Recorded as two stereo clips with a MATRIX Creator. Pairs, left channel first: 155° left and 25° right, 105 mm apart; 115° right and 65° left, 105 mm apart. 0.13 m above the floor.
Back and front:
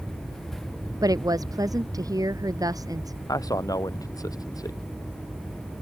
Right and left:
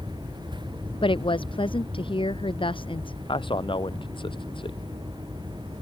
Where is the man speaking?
150° right.